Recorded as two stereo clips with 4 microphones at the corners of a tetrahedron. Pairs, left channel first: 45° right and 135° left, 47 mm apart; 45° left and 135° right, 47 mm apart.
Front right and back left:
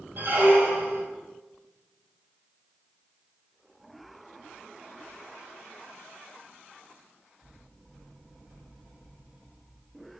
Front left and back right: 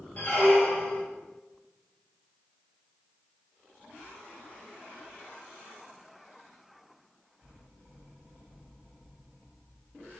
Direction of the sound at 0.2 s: 100° left.